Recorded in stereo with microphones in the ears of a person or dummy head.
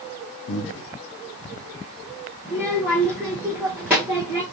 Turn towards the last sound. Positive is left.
turn(degrees=-5)  # may be behind; listen again after turning